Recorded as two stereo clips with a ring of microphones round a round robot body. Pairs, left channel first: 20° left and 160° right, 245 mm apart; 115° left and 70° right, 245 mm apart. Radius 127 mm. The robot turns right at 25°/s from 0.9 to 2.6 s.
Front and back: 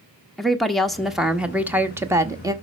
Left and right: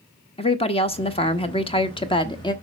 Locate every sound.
0.4 s a woman speaking: 110° left, 0.9 m; by 2.5 s 155° left, 0.9 m